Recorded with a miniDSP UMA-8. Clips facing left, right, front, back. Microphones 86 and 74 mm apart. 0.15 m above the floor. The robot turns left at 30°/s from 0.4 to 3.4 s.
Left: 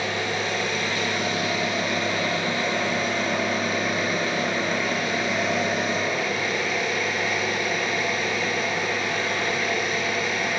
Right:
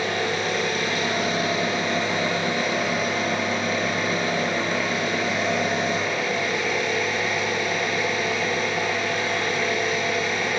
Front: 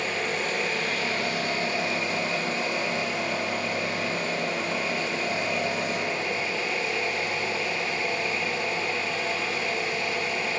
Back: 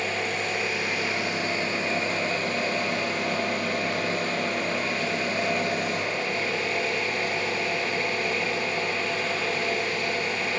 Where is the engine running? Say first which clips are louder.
Right 2 dB, even; 90° right, 1.2 m; by 10.6 s straight behind, 1.2 m.